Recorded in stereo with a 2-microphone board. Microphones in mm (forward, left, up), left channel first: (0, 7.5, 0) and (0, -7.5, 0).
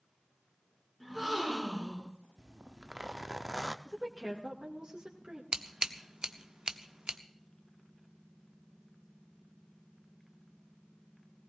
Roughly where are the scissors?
Right.